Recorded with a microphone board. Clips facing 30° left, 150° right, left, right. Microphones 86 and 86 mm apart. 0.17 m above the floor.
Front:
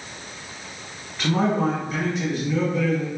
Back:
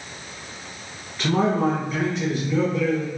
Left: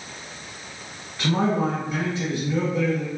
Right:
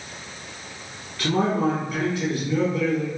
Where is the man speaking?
115° left, 1.2 m.